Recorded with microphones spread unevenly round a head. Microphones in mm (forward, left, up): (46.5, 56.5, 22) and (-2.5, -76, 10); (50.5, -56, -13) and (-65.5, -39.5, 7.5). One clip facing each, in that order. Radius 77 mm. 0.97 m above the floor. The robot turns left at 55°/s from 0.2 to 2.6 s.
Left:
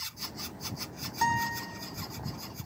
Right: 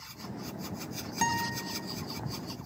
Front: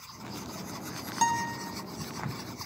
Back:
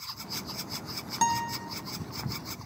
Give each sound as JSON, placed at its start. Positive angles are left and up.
{"t": 1.2, "sound": "a guitar", "azimuth_deg": -120, "distance_m": 0.6}